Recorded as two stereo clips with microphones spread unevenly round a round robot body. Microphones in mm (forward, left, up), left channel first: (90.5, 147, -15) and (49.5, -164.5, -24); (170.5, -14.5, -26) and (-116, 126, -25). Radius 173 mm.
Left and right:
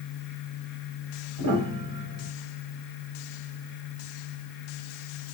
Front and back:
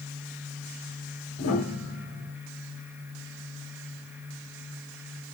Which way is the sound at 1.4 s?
80° right.